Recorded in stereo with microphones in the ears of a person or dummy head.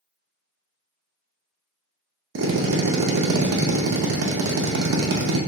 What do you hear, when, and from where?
2.4 s a drill: 75° right (ahead or behind), 0.6 m